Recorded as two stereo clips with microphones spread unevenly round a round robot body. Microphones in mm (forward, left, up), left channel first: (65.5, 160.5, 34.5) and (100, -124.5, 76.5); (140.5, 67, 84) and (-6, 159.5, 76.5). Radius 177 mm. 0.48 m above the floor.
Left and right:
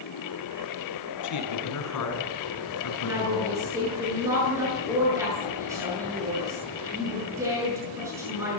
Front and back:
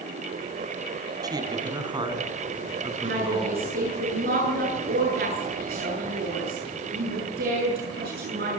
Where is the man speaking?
80° left, 5 m; by 3.7 s 90° left, 6 m.